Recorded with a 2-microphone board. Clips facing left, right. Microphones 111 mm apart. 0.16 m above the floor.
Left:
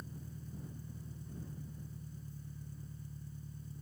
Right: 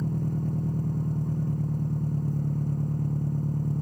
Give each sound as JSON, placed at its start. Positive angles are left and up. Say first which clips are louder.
{"t": 0.0, "sound": "an engine running", "louder": "right 20 dB", "side_deg": -70}